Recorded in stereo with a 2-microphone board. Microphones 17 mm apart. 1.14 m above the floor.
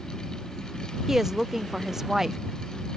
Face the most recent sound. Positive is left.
turn(degrees=-25)  # may be behind; listen again after turning